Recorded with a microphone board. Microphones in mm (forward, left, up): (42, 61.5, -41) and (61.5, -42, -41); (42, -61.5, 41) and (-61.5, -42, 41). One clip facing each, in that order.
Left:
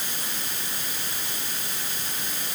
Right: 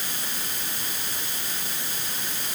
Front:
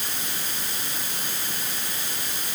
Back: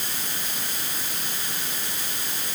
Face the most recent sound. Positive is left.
No sound to turn to.